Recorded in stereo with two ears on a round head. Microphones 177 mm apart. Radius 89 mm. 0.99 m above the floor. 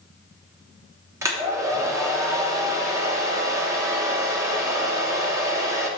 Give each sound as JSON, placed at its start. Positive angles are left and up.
{"t": 1.2, "sound": "a hair dryer", "side_deg": -15, "distance_m": 1.1}